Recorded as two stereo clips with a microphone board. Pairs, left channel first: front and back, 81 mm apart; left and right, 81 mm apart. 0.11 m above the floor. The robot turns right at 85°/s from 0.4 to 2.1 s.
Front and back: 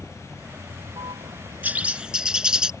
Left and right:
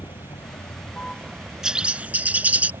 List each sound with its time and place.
0.0 s a vehicle: 110° left; by 2.8 s 105° right
1.6 s a bird: 160° right; by 2.7 s 120° right